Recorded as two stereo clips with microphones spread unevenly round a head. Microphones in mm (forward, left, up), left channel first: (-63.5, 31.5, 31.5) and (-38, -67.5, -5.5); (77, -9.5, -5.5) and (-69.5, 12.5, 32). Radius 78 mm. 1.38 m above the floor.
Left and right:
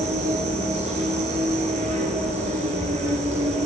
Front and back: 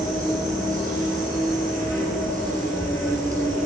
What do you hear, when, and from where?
0.0 s an insect: 95° right, 3 m